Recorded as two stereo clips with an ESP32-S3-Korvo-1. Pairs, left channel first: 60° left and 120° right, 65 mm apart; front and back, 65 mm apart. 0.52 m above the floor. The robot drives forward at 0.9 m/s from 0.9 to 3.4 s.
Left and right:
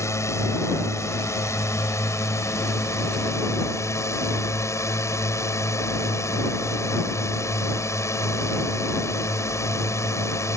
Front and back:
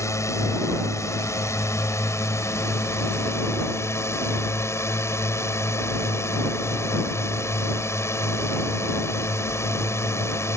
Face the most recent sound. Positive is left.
turn(degrees=35)